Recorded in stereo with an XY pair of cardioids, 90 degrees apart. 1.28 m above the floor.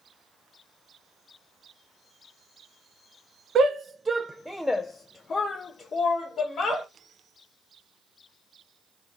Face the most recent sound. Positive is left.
turn(degrees=70)